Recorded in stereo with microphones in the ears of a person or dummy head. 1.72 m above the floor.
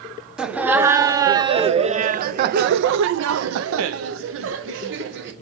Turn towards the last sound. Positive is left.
turn(degrees=-65)  # may be behind; listen again after turning